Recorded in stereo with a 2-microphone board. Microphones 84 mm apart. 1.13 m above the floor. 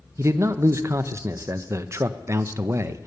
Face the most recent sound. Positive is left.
turn(degrees=-30)  # may be behind; listen again after turning